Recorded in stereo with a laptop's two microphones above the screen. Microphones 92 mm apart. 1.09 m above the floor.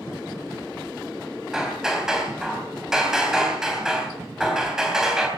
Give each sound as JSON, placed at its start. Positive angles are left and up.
{"t": 1.5, "sound": "hammering", "side_deg": -5, "distance_m": 3.5}